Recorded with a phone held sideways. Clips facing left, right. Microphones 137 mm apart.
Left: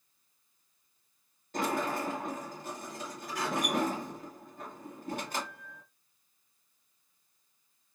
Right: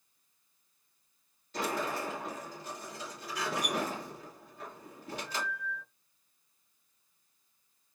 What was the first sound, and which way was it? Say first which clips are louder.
A sliding door: left 2 dB; 50° left (ahead or behind).